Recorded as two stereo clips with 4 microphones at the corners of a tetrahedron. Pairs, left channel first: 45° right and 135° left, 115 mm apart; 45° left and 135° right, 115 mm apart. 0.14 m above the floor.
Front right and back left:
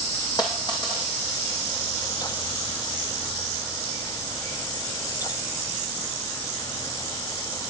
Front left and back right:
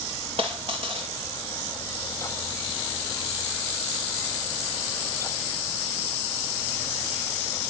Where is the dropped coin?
95° right, 2.5 m.